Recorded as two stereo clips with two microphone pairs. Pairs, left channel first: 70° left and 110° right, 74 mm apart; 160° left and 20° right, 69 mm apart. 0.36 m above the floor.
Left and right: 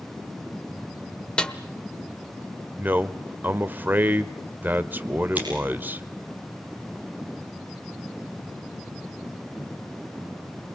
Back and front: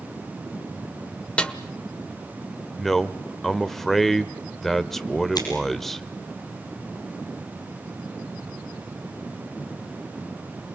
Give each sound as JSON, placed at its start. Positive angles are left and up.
{"t": 1.4, "sound": "a snare drum", "azimuth_deg": 125, "distance_m": 1.3}
{"t": 2.8, "sound": "a man speaking", "azimuth_deg": -120, "distance_m": 0.8}
{"t": 5.3, "sound": "scissors", "azimuth_deg": -175, "distance_m": 5.5}